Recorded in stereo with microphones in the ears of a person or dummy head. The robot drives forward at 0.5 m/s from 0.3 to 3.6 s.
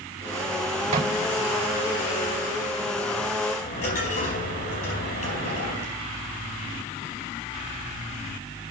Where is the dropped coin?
55° left (ahead or behind), 4 m.